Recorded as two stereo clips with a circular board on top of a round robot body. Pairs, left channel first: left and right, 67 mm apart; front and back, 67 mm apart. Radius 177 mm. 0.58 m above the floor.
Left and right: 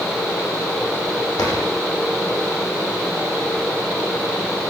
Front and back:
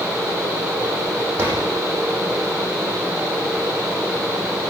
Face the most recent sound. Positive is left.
turn(degrees=120)